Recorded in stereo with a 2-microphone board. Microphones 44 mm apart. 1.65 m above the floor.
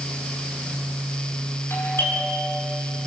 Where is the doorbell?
65° left (ahead or behind), 8 m.